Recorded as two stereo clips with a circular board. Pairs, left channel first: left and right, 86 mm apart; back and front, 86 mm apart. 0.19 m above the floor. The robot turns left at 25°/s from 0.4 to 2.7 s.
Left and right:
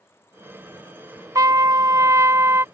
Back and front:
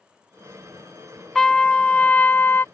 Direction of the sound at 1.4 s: 100° right.